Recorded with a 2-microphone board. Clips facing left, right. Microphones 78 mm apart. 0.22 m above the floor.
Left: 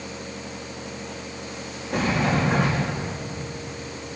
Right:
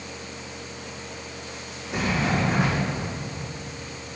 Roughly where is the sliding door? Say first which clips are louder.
Left 2 dB; left.